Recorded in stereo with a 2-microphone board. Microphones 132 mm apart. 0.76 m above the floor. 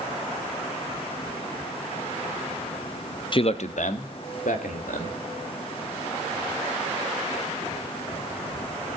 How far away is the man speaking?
About 0.6 m.